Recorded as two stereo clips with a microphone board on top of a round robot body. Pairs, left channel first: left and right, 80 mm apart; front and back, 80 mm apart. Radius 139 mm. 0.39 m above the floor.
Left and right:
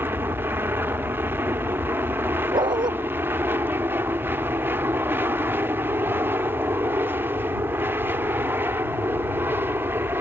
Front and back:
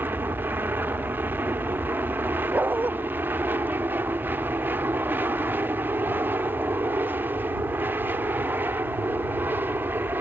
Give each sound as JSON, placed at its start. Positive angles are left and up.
{"t": 0.0, "sound": "an aircraft", "azimuth_deg": -130}
{"t": 2.5, "sound": "a dog barking", "azimuth_deg": -110}